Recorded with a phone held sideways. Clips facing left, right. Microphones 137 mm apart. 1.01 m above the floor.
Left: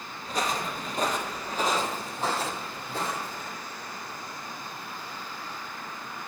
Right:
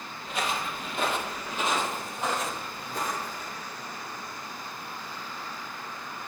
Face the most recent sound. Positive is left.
turn(degrees=25)  # may be behind; listen again after turning